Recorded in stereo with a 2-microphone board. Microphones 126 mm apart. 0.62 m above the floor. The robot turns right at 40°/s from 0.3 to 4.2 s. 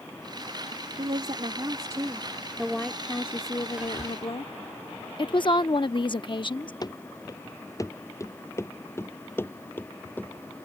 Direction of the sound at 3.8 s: 10° right (ahead or behind).